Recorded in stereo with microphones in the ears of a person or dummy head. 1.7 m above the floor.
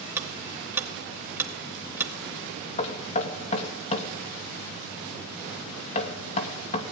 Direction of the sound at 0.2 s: 10° right (ahead or behind).